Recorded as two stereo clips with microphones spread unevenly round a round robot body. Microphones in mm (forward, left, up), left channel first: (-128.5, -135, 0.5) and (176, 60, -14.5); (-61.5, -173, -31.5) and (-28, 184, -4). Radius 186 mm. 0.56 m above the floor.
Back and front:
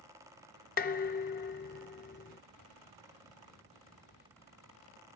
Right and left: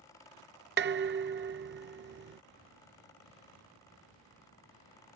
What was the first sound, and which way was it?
Dishes clattering, 145° left.